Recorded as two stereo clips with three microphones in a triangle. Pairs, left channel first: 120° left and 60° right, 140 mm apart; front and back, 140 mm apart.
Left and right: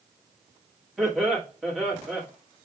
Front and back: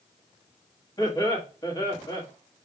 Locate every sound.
1.0 s laughter: 25° left, 1.4 m